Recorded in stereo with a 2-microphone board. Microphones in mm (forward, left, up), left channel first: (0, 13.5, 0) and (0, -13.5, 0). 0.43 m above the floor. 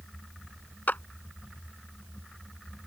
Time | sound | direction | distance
0.9 | a clap | 75° left (ahead or behind) | ?